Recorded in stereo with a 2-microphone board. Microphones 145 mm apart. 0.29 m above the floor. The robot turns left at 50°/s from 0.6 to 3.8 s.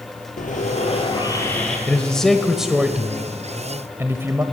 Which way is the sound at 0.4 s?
60° left.